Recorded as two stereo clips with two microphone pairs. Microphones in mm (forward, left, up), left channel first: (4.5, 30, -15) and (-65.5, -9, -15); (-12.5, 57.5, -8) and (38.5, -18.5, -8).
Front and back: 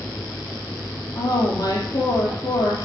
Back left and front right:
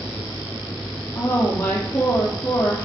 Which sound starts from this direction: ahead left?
A woman speaking, at 1.1 s.